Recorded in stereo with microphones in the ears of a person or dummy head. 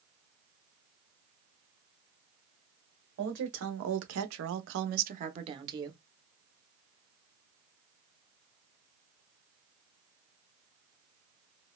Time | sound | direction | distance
3.2 | a woman speaking | 60° right (ahead or behind) | 1.0 m